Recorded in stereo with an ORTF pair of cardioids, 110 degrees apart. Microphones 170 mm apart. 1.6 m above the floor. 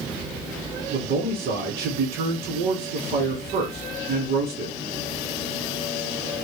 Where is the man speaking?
65° right, 1.5 m.